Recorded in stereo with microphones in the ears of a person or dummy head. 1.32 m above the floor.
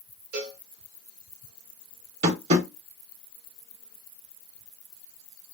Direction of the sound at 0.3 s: 60° right (ahead or behind).